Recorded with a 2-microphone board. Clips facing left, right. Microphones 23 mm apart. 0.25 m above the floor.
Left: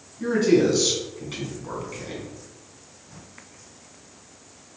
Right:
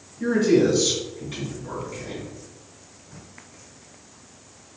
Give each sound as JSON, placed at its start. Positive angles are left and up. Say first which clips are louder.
{"t": 0.2, "sound": "a man speaking", "louder": "even", "side_deg": 30, "distance_m": 1.8}